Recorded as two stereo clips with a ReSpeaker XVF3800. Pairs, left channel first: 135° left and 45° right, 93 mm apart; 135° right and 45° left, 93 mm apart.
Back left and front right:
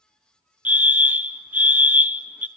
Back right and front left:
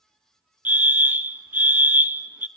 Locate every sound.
0.7 s a fire alarm: 5° left, 0.8 m